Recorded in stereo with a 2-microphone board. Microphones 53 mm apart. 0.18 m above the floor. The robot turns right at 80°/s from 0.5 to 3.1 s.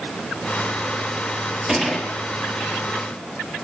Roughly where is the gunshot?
Ahead.